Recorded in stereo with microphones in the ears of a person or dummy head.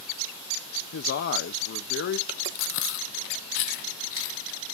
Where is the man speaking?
55° left (ahead or behind), 0.7 m.